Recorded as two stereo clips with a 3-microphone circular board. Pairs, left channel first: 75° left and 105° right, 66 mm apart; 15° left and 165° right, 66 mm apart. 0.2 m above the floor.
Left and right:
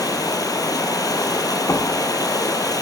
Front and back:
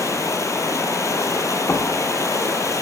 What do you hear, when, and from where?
0.0 s running water: 55° left, 2 m
1.7 s knocking: 60° left, 1.5 m